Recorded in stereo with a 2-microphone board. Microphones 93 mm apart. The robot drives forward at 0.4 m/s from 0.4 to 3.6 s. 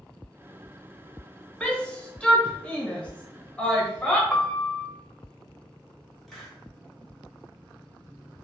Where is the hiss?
Centre (ahead or behind), 1.0 m.